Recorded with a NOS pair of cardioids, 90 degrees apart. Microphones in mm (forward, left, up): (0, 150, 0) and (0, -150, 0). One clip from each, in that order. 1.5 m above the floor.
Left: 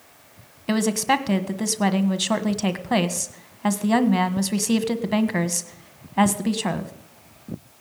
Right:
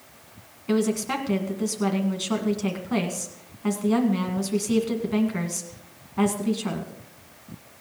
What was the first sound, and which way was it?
A woman speaking, 50° left.